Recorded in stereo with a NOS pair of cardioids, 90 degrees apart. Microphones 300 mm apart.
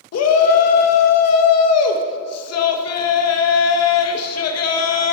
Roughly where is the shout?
Ahead left.